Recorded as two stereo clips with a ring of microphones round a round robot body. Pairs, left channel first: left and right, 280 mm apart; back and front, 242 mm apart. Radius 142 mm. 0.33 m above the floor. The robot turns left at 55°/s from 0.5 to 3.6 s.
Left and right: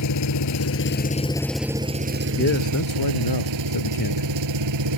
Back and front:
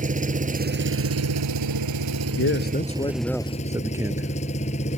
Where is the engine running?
60° left; by 5.0 s 110° right.